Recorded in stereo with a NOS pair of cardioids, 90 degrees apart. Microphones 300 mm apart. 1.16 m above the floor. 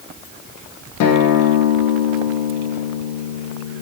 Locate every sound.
1.0 s a guitar: 65° left, 0.8 m